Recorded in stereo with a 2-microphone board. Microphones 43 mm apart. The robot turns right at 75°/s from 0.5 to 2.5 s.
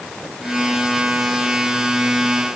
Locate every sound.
Only background noise.